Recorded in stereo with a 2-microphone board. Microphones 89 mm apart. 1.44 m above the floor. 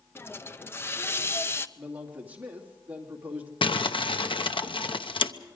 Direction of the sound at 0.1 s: 25° left (ahead or behind).